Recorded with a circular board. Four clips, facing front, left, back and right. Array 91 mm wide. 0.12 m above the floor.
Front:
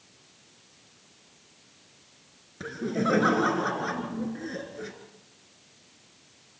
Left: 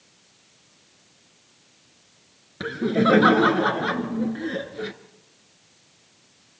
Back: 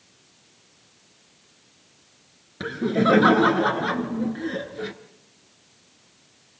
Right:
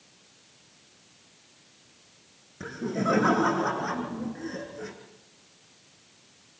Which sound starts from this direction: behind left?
Laughter, at 2.6 s.